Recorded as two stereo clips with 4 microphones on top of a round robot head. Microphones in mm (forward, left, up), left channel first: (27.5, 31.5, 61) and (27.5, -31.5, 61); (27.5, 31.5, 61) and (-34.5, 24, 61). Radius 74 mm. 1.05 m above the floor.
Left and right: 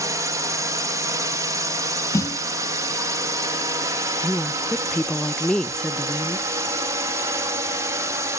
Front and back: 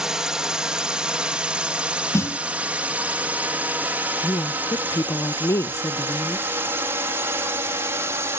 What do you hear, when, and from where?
0.0 s a drone: 95° right; by 8.4 s 130° right
2.1 s a snare drum: 50° left
4.2 s a woman speaking: 10° left